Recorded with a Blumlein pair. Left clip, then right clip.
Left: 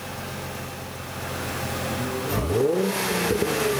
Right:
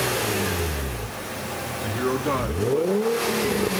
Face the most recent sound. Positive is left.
turn(degrees=-5)